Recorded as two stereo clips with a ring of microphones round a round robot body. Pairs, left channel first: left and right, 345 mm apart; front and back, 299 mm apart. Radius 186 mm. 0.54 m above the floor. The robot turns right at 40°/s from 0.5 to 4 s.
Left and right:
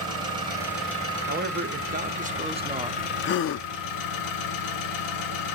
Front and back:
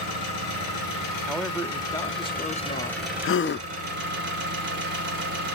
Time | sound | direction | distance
0.0 | an engine running | 15° right | 2.5 m
1.3 | a man speaking | 90° right | 0.6 m
3.2 | a gasp | 35° left | 0.5 m